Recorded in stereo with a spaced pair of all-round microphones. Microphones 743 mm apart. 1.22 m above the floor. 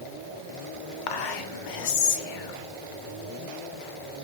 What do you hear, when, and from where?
1.1 s whispering: 85° left, 0.8 m